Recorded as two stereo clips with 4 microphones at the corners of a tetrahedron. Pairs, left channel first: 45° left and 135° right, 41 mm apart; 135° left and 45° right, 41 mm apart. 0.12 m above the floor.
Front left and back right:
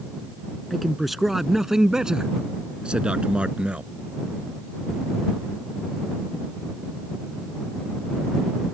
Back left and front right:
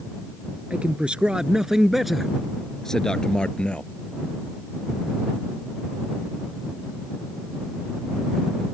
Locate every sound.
0.7 s a man speaking: 45° right; by 3.9 s straight behind